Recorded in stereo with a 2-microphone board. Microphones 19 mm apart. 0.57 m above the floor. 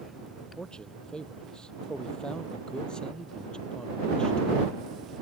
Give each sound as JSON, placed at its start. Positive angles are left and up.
{"t": 0.6, "sound": "a man speaking", "side_deg": 45}